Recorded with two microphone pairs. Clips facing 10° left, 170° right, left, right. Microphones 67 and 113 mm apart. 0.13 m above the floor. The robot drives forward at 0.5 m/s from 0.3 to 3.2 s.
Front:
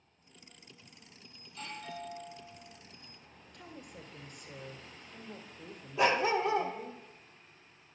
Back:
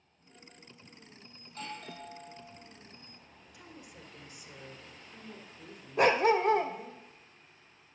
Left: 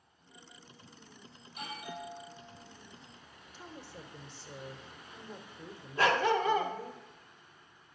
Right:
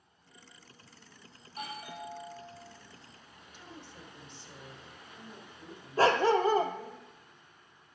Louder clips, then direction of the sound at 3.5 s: Front 2 dB, left 2 dB; 110° left.